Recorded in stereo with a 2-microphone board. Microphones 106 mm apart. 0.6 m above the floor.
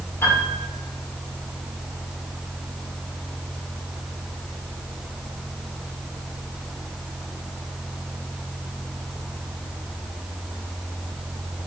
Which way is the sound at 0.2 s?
25° left (ahead or behind).